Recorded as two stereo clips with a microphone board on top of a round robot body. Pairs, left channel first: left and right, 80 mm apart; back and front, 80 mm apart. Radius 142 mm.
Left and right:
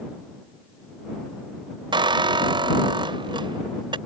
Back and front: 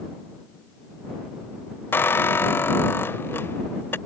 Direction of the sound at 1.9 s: 115° right.